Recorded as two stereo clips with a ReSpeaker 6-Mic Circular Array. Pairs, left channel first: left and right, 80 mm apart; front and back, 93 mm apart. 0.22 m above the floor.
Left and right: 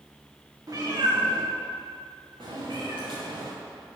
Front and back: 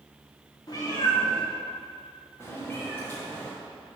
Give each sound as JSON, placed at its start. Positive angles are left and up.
{"t": 0.7, "sound": "a cat meowing", "azimuth_deg": -45, "distance_m": 2.5}